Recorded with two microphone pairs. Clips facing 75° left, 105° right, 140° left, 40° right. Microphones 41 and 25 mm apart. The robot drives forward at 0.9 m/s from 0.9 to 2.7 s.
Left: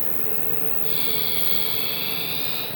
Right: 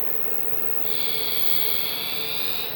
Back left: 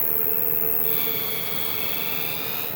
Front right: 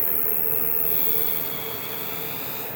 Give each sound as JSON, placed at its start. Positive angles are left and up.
{"t": 0.0, "sound": "an insect", "azimuth_deg": 80, "distance_m": 0.9}